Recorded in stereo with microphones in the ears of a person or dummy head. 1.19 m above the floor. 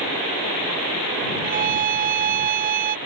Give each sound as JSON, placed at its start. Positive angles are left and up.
{"t": 1.4, "sound": "a violin", "side_deg": -40}